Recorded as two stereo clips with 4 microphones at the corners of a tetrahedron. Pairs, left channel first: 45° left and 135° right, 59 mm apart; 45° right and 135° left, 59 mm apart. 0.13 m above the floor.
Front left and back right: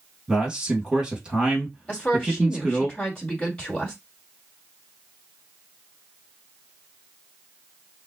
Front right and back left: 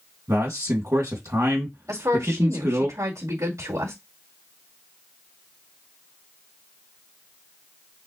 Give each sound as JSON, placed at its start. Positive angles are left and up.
{"t": 0.3, "sound": "a man speaking", "azimuth_deg": 150, "distance_m": 3.0}
{"t": 1.9, "sound": "a woman speaking", "azimuth_deg": 120, "distance_m": 4.0}